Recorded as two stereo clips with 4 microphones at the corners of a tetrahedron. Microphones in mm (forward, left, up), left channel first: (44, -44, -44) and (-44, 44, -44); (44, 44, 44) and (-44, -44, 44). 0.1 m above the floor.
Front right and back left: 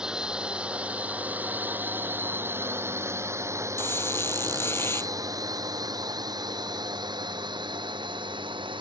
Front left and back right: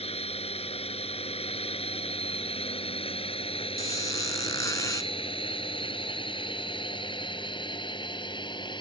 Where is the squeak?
5° left.